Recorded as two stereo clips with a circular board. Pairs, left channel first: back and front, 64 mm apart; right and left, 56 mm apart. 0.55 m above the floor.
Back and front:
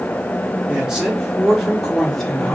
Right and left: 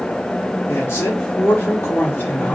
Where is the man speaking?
70° right, 2 m; by 2.6 s 110° right, 1.5 m.